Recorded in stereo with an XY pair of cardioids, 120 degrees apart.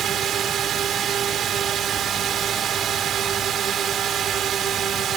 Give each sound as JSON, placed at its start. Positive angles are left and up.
{"t": 0.0, "sound": "a drone", "azimuth_deg": -50}